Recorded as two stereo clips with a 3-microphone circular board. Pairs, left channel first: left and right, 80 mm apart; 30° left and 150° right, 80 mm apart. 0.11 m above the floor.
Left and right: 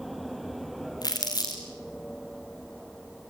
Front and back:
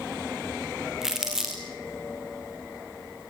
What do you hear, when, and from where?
1.0 s crumpling: 125° left, 3.5 m